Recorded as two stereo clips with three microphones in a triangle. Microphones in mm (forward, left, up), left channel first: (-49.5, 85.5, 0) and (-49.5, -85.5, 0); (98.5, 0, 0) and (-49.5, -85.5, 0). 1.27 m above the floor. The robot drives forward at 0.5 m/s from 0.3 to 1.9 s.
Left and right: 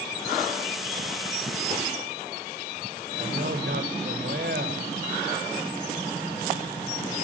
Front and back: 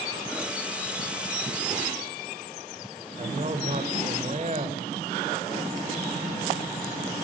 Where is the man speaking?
105° right, 6.5 m.